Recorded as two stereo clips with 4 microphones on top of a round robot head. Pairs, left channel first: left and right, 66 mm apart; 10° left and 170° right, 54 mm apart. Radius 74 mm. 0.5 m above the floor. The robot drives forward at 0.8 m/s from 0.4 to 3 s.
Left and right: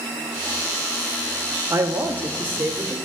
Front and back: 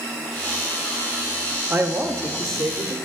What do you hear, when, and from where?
1.7 s a man speaking: 125° right, 0.9 m; by 3.0 s 155° right, 1.6 m